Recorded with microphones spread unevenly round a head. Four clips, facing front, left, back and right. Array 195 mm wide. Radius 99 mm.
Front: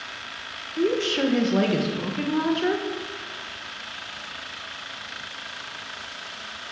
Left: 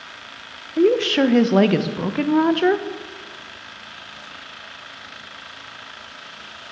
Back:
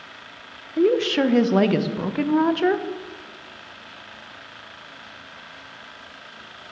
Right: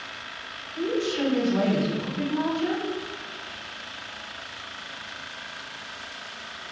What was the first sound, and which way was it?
A woman speaking, 105° left.